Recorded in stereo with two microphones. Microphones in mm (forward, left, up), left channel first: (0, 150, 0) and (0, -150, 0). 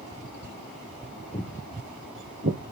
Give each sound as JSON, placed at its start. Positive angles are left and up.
{"t": 1.3, "sound": "footsteps", "side_deg": 30, "distance_m": 1.1}